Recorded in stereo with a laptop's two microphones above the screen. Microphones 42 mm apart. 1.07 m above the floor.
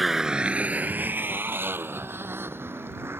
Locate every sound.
0.0 s a motorcycle: centre (ahead or behind); by 3.2 s 70° right (ahead or behind)